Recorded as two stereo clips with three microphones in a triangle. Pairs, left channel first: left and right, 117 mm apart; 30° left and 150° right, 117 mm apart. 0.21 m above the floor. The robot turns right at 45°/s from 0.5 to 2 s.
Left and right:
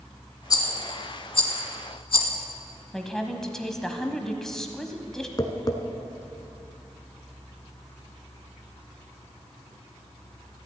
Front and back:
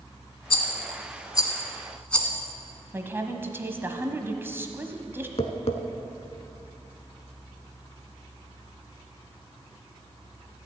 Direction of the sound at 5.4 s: 40° left.